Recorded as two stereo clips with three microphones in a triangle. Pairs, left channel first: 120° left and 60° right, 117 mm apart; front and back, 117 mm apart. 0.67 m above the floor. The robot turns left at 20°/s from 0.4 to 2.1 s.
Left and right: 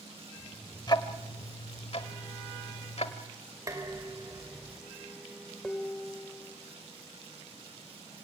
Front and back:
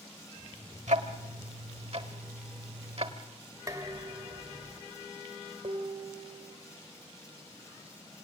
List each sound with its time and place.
0.9 s ticking: 175° left, 1.1 m; by 3.1 s 150° left, 1.1 m
3.7 s dishes clattering: 120° right, 2.0 m
5.6 s dishes clattering: 155° right, 1.5 m